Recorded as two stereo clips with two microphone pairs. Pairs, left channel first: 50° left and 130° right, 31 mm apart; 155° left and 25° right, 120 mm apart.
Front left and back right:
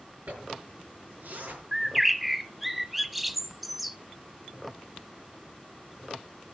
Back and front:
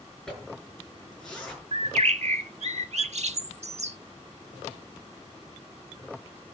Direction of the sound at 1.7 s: 45° right.